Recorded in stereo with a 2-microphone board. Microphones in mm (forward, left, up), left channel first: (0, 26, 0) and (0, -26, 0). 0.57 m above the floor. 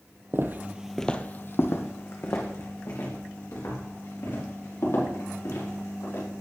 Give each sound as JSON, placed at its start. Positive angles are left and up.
{"t": 0.3, "sound": "footsteps", "side_deg": -50, "distance_m": 0.9}